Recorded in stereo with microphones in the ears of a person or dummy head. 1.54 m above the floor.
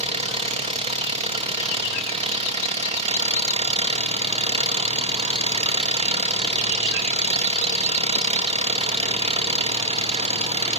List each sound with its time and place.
0.0 s an engine running: 30° right (ahead or behind), 1.8 m